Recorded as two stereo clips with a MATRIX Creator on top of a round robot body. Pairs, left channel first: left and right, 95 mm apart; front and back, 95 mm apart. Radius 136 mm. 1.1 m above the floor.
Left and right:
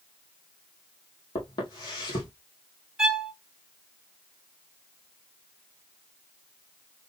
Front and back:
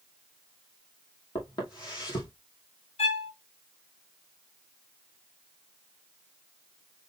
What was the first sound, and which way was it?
Footsteps, 45° left.